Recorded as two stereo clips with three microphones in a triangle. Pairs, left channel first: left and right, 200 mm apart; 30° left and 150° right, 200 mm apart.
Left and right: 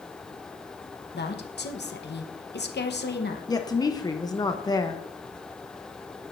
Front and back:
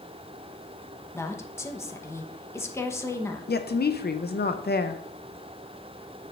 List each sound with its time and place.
1.1 s a woman speaking: 105° left, 0.8 m
3.5 s a woman speaking: 25° left, 0.5 m